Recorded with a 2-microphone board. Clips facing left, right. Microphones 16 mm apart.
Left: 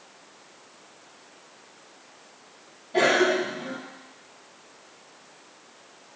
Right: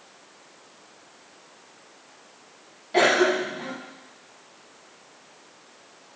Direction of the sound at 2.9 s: 35° right (ahead or behind).